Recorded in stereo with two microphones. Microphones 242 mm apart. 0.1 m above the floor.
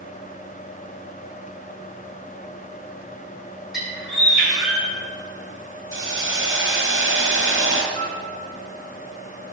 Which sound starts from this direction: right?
A hiss, at 5.9 s.